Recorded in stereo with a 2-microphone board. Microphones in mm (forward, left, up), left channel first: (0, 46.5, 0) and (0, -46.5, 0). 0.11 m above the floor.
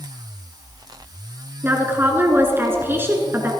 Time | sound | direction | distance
1.6 | a woman speaking | 25° right (ahead or behind) | 1.4 m